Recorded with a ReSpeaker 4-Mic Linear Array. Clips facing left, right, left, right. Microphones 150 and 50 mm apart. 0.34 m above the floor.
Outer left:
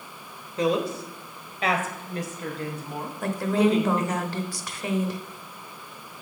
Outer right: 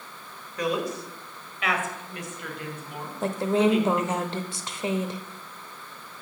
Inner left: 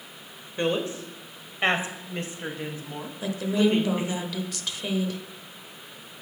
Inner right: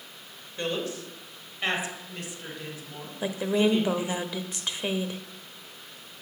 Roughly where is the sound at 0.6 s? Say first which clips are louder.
Outer left 3 dB, inner left 4 dB; left.